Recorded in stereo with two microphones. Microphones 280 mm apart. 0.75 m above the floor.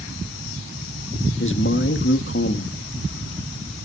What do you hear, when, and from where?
1.4 s a man speaking: 45° left (ahead or behind), 1.2 m